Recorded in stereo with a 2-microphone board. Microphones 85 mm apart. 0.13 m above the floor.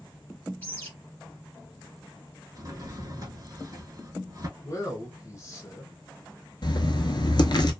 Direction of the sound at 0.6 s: 20° left (ahead or behind).